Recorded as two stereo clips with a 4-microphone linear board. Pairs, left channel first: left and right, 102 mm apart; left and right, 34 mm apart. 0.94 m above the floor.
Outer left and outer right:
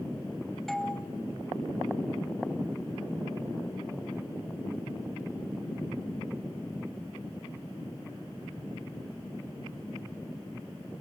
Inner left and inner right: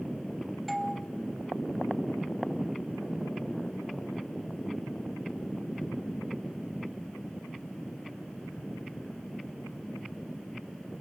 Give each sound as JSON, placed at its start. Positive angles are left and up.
{"t": 0.7, "sound": "a doorbell", "side_deg": 0, "distance_m": 1.4}